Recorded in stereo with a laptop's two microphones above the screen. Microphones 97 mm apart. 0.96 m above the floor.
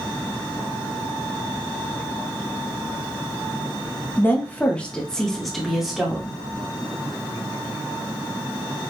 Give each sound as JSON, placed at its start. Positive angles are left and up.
{"t": 4.2, "sound": "a woman speaking", "side_deg": 20, "distance_m": 1.2}